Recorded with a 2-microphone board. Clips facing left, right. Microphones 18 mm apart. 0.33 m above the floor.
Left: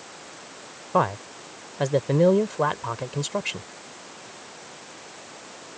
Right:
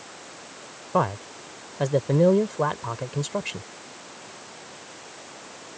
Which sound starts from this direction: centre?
A man speaking, at 0.9 s.